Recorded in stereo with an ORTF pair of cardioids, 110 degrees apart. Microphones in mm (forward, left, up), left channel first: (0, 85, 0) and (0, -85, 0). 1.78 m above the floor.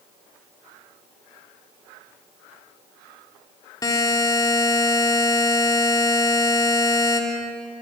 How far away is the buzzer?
About 3 m.